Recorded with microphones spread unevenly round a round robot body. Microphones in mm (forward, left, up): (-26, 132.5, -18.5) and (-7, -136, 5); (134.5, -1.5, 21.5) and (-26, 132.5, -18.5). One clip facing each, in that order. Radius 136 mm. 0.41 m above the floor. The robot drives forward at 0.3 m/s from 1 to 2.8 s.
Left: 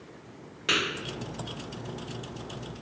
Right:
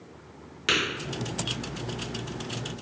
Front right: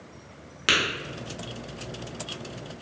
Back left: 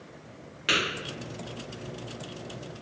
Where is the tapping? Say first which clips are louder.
Right 2 dB, front right 1 dB; 25° right, 0.8 m.